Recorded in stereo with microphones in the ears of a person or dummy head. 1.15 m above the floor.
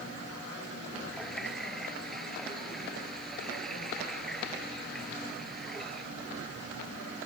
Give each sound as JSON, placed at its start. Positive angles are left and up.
{"t": 1.1, "sound": "a running tap", "side_deg": 0}